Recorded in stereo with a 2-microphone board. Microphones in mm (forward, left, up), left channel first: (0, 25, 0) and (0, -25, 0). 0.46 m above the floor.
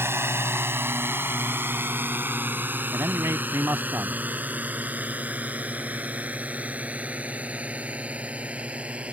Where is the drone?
55° right (ahead or behind); by 9.1 s 25° right (ahead or behind).